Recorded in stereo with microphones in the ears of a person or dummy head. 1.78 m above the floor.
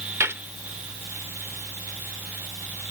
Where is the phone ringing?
I don't hear a phone ringing.